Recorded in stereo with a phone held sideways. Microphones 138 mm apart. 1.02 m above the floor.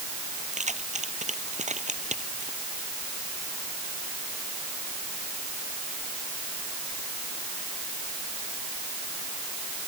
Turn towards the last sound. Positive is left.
turn(degrees=-60)  # may be behind; listen again after turning